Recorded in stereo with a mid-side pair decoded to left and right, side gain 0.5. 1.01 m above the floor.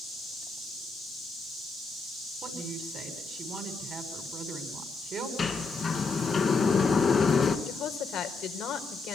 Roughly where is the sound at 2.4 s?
Ahead right.